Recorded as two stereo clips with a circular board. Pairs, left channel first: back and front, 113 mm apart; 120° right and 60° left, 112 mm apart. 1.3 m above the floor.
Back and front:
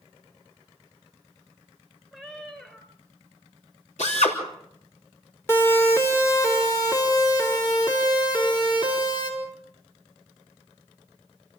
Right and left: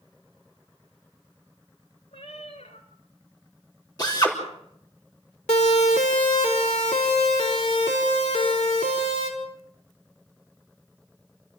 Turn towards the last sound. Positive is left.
turn(degrees=-130)